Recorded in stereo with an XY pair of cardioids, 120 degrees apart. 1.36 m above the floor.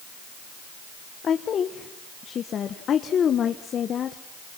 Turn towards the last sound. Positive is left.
turn(degrees=45)